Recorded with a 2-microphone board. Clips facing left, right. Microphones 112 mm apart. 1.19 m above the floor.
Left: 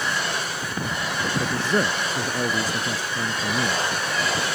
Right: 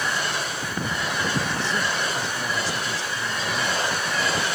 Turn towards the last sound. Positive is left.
turn(degrees=50)  # may be behind; listen again after turning